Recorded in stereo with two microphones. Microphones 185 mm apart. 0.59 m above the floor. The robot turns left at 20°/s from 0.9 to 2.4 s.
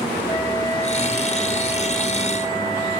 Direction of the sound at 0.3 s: 35° right.